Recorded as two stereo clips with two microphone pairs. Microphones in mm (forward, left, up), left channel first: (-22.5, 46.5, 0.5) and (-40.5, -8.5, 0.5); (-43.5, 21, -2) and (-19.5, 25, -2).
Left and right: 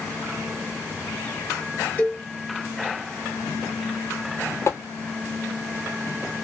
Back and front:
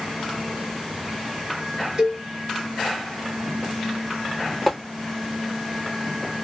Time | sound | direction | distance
2.0 | a cowbell | 45° left | 1.7 m
4.7 | tapping | 105° left | 1.0 m